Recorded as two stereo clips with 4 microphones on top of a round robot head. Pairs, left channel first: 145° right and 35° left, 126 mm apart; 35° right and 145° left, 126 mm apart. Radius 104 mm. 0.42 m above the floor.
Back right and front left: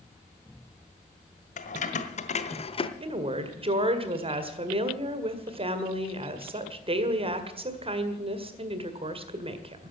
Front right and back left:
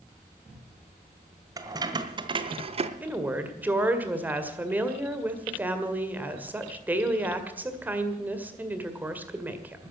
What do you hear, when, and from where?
1.6 s keys jangling: 155° right, 1.6 m; by 2.9 s 175° left, 1.0 m
3.0 s a woman speaking: 70° left, 2.0 m